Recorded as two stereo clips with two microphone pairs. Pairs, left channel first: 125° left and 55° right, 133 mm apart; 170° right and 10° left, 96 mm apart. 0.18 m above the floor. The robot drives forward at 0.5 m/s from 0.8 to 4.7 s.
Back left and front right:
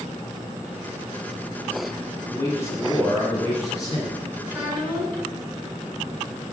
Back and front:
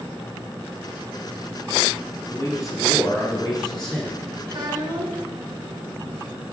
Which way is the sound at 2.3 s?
Straight behind.